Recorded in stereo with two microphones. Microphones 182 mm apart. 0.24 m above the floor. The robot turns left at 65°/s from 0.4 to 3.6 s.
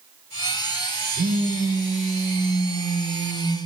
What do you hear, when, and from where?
1.1 s a phone buzzing: 125° right, 1.0 m; by 3.6 s 80° left, 1.0 m